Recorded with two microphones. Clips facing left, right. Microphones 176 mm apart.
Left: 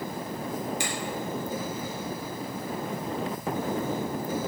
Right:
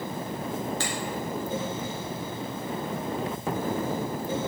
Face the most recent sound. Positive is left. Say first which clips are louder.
# right 1 dB
turn(degrees=15)  # may be behind; listen again after turning